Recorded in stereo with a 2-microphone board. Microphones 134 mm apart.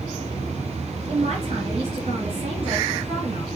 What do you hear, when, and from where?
1.1 s a man speaking: 55° right (ahead or behind), 3 m